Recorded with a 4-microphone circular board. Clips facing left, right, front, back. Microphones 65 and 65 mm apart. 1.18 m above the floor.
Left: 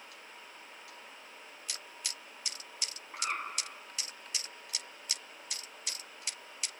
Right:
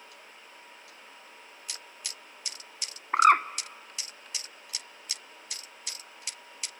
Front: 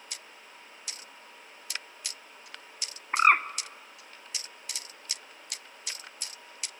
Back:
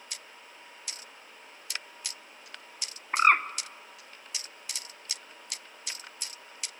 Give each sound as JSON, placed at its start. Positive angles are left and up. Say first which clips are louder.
{"t": 3.1, "sound": "a bird", "louder": "right 18 dB, even", "azimuth_deg": -85, "distance_m": 0.5}